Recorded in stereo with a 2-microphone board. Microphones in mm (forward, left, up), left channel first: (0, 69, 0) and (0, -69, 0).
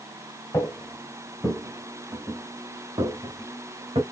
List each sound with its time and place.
0.5 s footsteps: 20° left (ahead or behind), 1.4 m; by 4.0 s 35° right (ahead or behind), 2 m